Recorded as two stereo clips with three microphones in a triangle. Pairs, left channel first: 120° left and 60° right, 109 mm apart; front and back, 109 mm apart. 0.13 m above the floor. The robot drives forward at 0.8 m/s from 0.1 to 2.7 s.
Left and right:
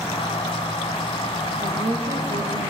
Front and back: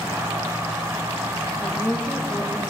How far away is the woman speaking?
About 2.5 m.